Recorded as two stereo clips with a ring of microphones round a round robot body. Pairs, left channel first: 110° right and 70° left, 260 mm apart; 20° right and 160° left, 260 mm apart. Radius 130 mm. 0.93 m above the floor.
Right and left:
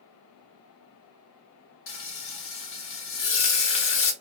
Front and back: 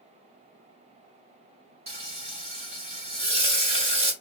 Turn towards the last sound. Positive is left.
turn(degrees=-140)